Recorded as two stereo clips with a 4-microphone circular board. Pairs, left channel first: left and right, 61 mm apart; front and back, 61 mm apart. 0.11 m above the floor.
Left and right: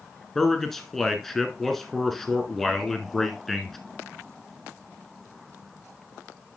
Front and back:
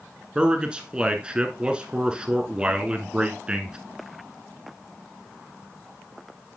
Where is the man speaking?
160° left, 1.1 m.